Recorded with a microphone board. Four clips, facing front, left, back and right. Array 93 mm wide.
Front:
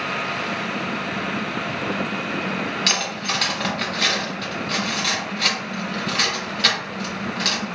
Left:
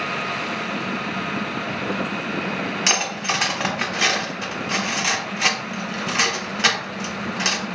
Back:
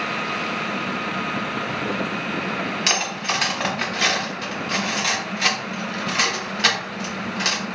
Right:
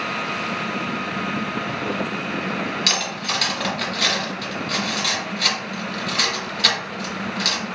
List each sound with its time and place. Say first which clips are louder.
2.9 s cutlery clinking: left 2 dB, back 1 dB; 115° left, 0.5 m